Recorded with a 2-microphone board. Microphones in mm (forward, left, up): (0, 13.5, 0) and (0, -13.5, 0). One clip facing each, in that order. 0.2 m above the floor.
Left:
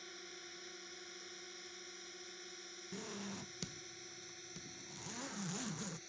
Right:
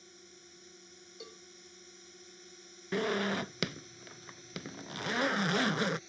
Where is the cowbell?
80° right.